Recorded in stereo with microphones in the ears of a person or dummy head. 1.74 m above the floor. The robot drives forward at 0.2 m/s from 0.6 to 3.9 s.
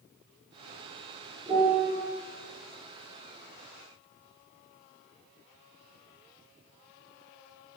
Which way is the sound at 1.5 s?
30° right (ahead or behind).